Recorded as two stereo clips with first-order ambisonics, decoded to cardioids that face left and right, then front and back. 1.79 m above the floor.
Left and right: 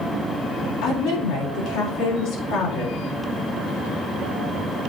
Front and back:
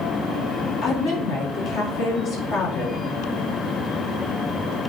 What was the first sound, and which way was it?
A woman speaking, 50° left.